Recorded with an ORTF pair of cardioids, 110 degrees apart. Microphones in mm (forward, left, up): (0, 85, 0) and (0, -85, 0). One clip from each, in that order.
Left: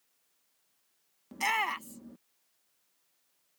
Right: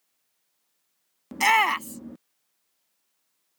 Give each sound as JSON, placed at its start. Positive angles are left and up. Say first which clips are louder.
{"t": 1.3, "sound": "a shout", "louder": "right 10 dB", "azimuth_deg": -45}